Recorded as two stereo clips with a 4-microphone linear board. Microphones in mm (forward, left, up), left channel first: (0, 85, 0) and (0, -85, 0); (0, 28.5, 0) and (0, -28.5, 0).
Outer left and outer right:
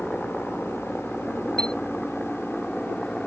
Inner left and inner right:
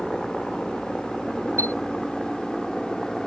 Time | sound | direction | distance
0.0 | a helicopter | 5° left (ahead or behind) | ?
1.6 | a chime | 65° right (ahead or behind) | ?